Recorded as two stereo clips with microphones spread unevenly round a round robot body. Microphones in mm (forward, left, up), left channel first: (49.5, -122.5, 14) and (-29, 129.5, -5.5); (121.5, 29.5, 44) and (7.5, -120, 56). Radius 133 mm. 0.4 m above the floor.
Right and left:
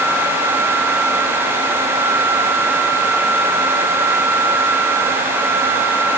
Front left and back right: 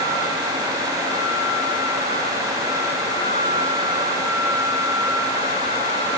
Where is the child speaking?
I don't hear a child speaking.